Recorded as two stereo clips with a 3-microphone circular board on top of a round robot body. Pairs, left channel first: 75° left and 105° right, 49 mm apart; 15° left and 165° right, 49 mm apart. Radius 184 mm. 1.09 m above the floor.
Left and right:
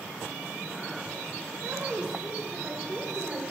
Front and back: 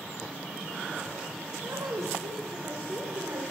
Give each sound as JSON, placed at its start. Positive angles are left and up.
{"t": 1.6, "sound": "a woman speaking", "azimuth_deg": -165, "distance_m": 0.7}